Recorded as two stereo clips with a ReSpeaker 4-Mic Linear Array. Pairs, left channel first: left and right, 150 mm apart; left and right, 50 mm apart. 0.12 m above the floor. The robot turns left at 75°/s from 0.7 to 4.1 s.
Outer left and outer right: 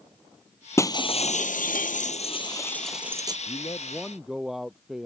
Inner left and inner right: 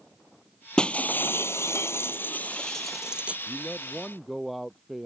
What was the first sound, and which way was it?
Breaking glass, 160° left.